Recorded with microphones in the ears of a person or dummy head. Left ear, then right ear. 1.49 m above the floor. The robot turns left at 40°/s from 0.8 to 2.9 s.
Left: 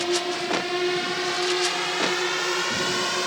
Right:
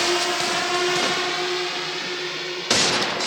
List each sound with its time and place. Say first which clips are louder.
0.0 s a drone: right 4 dB; 50° right (ahead or behind); by 3.3 s 60° left (ahead or behind)